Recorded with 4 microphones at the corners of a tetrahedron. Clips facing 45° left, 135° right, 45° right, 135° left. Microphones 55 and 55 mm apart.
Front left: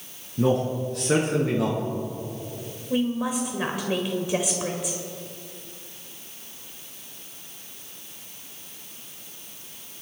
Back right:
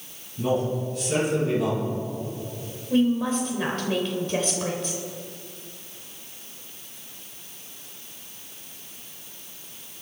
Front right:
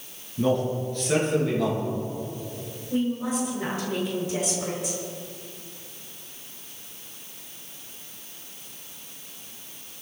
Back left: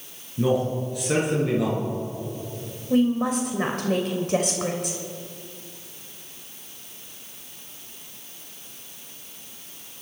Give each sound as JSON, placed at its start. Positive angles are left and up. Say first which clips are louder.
{"t": 0.4, "sound": "a man speaking", "louder": "front left 2 dB, back left 1 dB", "azimuth_deg": 55, "distance_m": 6.5}
{"t": 2.9, "sound": "a woman speaking", "louder": "back right 3 dB, back left 5 dB", "azimuth_deg": 120, "distance_m": 2.0}